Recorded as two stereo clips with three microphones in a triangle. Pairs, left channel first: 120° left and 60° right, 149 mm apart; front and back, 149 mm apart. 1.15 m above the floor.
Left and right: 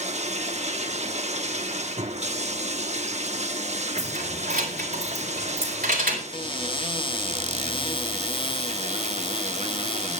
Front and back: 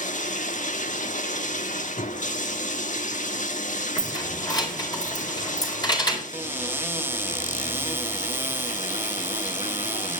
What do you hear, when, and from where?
0.0 s running water: 25° right, 1.2 m
4.0 s keys jangling: 60° right, 4 m
6.3 s a cupboard door: 115° left, 0.6 m